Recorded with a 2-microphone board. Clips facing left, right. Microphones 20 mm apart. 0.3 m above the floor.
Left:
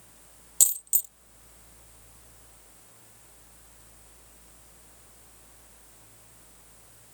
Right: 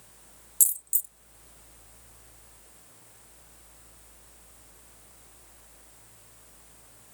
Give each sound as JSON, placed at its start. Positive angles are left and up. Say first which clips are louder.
{"t": 0.6, "sound": "a dropped coin", "louder": "left 4 dB", "side_deg": 45}